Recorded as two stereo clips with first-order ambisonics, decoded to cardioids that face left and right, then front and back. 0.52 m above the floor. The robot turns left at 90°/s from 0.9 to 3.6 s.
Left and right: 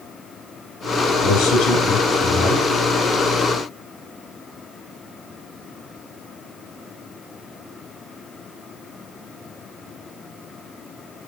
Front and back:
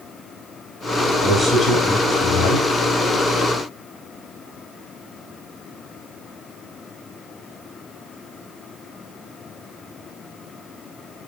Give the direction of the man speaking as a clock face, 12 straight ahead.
9 o'clock.